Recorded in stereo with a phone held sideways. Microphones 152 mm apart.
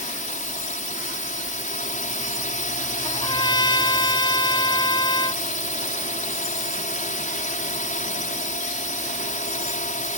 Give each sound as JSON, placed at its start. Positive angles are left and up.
{"t": 0.0, "sound": "a drone", "side_deg": 60}
{"t": 3.0, "sound": "a trumpet", "side_deg": 30}